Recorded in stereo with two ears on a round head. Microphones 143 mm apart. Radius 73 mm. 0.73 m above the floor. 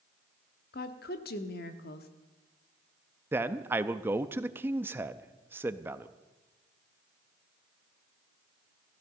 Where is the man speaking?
15° right (ahead or behind), 0.6 m.